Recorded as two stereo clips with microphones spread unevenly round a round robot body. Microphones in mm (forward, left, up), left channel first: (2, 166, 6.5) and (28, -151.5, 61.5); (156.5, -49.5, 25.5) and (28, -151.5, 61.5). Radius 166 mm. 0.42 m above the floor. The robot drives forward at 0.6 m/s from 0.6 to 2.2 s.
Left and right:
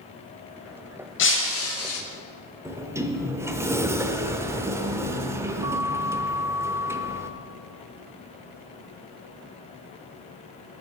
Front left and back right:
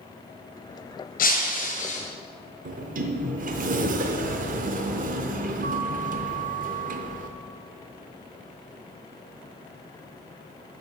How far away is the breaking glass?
About 1.3 m.